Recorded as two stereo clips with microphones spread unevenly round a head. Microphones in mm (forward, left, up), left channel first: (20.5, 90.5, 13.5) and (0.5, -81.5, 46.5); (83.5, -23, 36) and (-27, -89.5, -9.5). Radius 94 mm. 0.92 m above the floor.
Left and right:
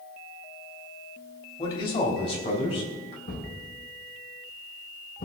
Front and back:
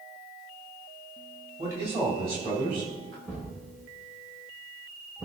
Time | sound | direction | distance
1.6 | a man speaking | 145° left | 2.5 m
3.3 | a thud | 125° left | 4.5 m